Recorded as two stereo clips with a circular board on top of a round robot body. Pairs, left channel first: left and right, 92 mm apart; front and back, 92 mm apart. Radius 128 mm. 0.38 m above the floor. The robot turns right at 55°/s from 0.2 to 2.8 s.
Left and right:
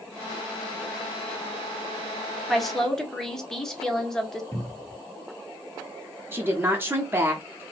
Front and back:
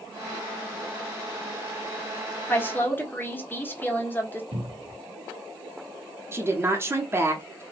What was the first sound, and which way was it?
A woman speaking, 5° right.